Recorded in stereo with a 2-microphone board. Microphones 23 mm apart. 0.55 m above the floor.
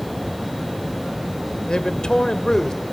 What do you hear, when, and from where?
1.7 s a man speaking: 40° left (ahead or behind), 1.6 m